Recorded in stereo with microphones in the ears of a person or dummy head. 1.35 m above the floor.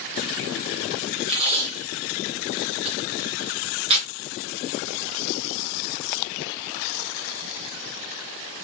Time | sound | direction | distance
1.3 | tape being pulled | 30° right (ahead or behind) | 1.4 m